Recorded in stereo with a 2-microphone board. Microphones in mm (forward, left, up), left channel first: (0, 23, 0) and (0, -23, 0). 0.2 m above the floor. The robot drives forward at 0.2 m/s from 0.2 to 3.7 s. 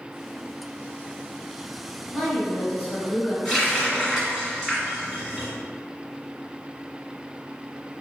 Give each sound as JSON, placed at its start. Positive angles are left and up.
{"t": 2.1, "sound": "a woman speaking", "side_deg": 5, "distance_m": 1.4}
{"t": 3.5, "sound": "a running tap", "side_deg": -5, "distance_m": 1.3}